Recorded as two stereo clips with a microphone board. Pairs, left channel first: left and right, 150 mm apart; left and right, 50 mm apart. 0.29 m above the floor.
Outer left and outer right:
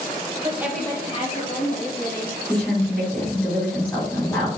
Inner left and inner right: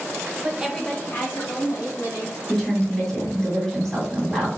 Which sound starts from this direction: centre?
A woman speaking, at 2.5 s.